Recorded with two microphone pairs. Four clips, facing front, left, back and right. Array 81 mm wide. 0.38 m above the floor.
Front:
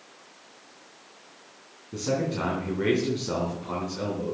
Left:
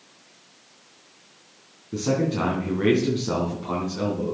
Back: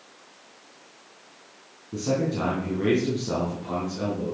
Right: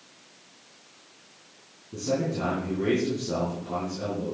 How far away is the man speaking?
About 3.5 m.